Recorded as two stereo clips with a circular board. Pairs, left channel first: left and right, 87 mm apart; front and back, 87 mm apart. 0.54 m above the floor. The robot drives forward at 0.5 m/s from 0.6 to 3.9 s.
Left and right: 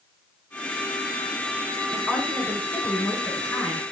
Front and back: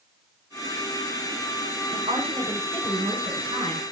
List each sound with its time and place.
1.9 s a woman speaking: straight behind, 5 m